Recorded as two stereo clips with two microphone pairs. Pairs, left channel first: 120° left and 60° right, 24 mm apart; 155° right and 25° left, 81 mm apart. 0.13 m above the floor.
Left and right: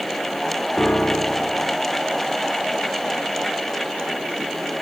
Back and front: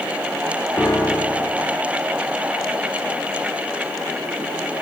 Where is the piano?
155° left, 1.4 m.